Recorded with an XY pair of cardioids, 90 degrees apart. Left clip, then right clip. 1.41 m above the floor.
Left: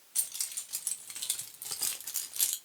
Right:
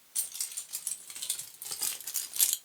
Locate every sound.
0.1 s keys jangling: 20° left, 1.8 m; by 2.5 s 65° right, 0.5 m